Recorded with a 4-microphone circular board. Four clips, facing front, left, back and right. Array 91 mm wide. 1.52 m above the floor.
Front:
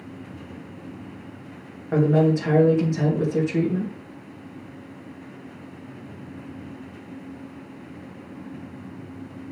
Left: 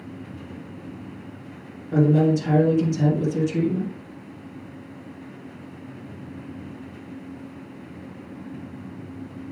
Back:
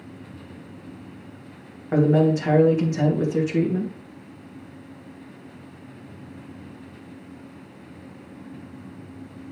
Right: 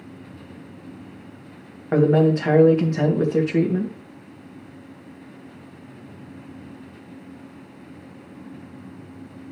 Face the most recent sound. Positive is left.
turn(degrees=-95)